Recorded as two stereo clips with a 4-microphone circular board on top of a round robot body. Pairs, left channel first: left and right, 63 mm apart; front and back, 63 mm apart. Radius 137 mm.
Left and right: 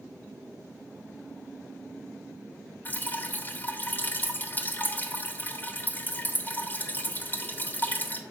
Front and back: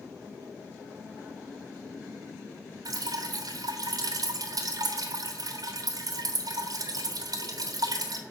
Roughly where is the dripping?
Behind left.